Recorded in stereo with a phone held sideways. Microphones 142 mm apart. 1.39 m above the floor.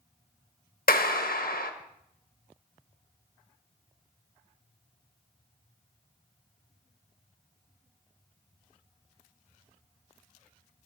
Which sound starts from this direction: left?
A clap, at 0.9 s.